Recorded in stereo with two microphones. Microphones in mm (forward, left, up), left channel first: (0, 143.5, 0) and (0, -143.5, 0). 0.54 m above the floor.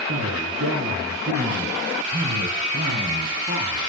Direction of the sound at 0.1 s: 60° right (ahead or behind).